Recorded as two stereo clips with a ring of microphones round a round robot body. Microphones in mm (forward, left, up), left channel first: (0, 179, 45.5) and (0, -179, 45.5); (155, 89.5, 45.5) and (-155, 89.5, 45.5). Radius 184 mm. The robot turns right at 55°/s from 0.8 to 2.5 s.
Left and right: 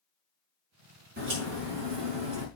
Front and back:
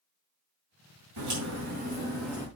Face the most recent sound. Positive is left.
turn(degrees=-80)